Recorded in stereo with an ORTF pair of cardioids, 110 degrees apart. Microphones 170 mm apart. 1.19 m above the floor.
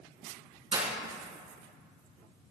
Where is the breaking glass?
35° right, 4.5 m.